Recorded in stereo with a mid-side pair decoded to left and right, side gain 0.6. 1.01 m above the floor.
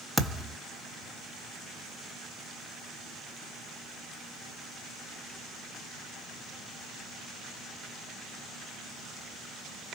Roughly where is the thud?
Ahead.